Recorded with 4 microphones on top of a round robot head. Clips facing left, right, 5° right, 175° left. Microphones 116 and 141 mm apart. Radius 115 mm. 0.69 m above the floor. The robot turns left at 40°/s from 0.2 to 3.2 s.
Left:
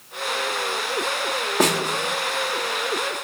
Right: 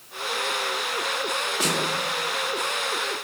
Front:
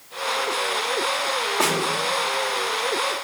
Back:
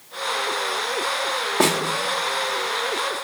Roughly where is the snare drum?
Behind left.